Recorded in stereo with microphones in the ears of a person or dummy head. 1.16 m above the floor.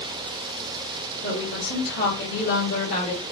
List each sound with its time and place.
1.2 s a woman speaking: 70° left (ahead or behind), 1.7 m; by 3.2 s 30° left (ahead or behind), 1.7 m